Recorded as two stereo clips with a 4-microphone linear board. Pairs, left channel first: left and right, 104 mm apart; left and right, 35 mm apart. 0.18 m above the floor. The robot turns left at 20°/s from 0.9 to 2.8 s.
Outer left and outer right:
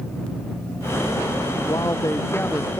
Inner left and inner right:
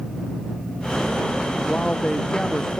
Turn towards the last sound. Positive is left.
turn(degrees=10)  # may be behind; listen again after turning